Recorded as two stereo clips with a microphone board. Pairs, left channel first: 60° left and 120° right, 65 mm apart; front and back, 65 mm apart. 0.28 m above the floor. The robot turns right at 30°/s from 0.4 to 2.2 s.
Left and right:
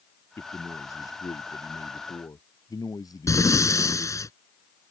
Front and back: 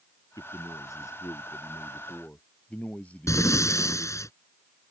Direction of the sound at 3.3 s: 30° left.